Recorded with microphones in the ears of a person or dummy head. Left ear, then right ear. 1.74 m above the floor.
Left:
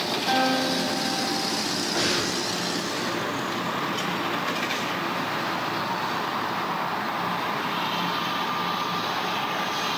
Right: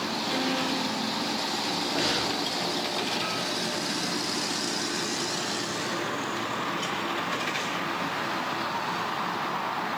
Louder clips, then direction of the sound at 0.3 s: Left 6 dB; 60° left (ahead or behind).